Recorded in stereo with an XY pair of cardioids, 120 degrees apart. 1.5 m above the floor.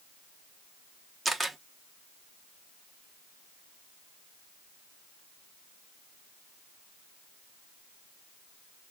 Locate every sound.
1.2 s a camera shutter: 10° right, 1.0 m